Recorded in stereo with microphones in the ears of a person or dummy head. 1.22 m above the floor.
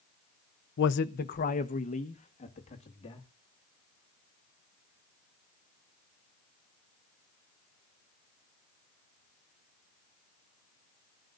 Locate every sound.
0.8 s a man speaking: 60° left (ahead or behind), 0.5 m; by 3.3 s 25° left (ahead or behind), 2.5 m